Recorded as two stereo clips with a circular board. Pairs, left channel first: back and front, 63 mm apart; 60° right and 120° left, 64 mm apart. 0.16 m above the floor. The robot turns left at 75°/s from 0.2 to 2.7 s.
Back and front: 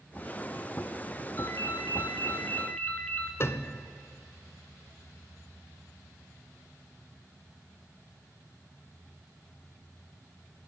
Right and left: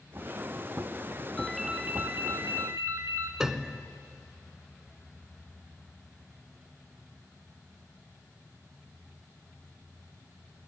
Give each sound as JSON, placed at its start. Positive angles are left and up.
{"t": 1.4, "sound": "a ringtone", "azimuth_deg": -135, "distance_m": 1.7}
{"t": 3.4, "sound": "a piano", "azimuth_deg": -160, "distance_m": 0.8}